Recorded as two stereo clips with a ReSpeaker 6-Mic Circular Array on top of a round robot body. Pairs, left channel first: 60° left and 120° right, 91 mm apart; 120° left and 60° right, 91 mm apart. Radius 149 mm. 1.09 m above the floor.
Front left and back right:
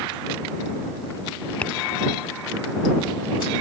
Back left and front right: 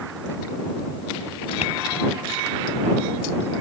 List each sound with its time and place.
1.6 s tapping: 140° left